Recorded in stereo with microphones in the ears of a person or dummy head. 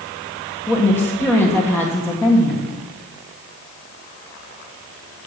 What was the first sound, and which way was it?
A woman speaking, 10° left (ahead or behind).